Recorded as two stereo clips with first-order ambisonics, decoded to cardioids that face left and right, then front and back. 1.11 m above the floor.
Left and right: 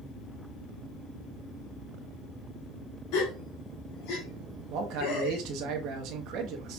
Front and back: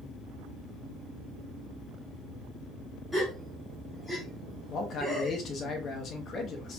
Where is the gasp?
80° left, 1.7 m.